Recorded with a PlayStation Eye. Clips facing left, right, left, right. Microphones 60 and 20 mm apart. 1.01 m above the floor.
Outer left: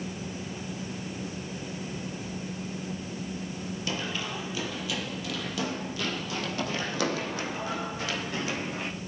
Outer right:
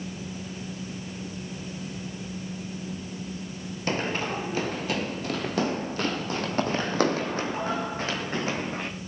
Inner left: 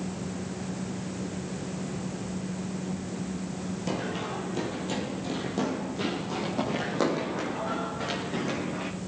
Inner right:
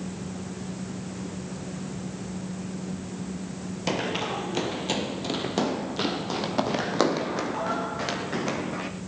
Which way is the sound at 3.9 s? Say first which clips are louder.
Outer right 7 dB, inner right 6 dB; 45° right (ahead or behind).